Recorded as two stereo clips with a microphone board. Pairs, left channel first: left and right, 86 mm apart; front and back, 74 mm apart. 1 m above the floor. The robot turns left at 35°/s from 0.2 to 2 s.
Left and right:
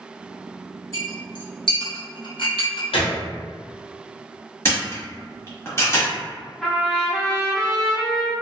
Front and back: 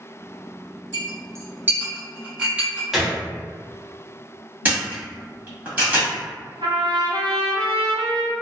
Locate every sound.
0.9 s a clink: 145° left, 0.8 m; by 2.8 s 105° left, 0.8 m
2.9 s a gunshot: 95° left, 0.7 m
4.7 s a camera shutter: 130° left, 1.0 m
6.6 s a trumpet: 175° left, 0.5 m